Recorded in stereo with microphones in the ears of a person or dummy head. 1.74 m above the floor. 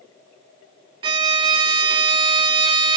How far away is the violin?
About 0.6 m.